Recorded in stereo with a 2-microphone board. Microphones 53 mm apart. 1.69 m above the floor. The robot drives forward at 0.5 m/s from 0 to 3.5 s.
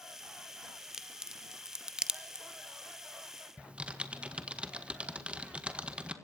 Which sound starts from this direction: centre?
A crack, at 0.9 s.